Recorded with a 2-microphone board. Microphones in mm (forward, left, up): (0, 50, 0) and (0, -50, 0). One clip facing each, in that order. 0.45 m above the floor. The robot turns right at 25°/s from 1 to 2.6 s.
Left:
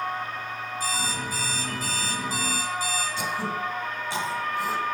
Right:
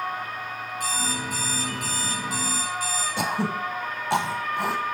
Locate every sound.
0.8 s an alarm clock: 100° right, 8.5 m; by 3.1 s 60° right, 8.5 m
3.2 s throat clearing: 70° right (ahead or behind), 1.2 m